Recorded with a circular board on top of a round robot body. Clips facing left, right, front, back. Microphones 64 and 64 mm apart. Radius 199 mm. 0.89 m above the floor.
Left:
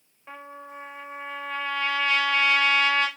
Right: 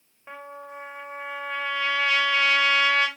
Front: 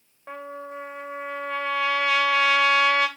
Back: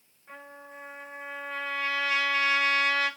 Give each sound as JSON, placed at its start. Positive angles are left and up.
{"t": 0.3, "sound": "a trumpet", "azimuth_deg": -10, "distance_m": 3.0}